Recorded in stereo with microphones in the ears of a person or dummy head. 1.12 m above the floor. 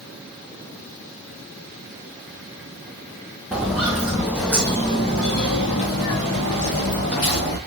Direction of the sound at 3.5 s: Centre (ahead or behind).